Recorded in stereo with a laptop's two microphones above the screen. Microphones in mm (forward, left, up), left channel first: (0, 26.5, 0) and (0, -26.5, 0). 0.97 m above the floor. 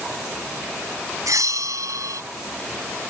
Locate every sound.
1.3 s a bell: 85° right